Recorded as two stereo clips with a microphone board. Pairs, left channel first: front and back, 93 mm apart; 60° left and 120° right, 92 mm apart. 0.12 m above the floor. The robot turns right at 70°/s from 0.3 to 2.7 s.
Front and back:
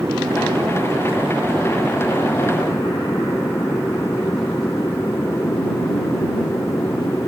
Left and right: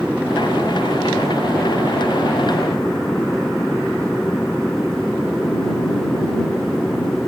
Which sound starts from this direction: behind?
An aircraft, at 0.0 s.